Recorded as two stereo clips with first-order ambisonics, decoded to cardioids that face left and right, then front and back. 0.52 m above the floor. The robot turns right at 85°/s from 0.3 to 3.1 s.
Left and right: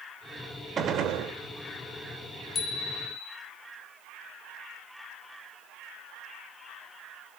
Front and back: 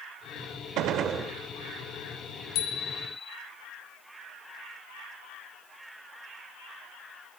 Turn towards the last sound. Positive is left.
turn(degrees=70)